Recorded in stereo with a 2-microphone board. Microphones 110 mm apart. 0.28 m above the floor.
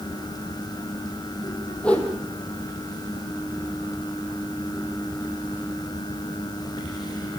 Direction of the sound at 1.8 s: 10° left (ahead or behind).